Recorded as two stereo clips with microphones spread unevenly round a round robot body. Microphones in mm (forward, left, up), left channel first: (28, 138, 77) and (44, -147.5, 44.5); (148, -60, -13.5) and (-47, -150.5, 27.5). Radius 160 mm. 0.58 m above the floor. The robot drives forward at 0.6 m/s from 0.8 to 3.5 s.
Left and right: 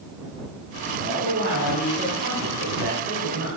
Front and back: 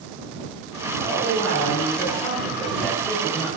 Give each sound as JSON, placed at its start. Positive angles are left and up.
{"t": 1.0, "sound": "a man speaking", "azimuth_deg": -35, "distance_m": 7.0}